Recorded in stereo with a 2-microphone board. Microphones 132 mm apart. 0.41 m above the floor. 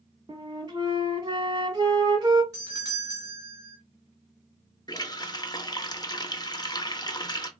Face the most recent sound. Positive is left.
turn(degrees=30)  # may be behind; listen again after turning